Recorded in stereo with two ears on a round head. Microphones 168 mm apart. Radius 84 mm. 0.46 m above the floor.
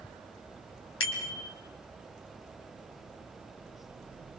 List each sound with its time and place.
1.0 s a bicycle bell: 80° left, 4 m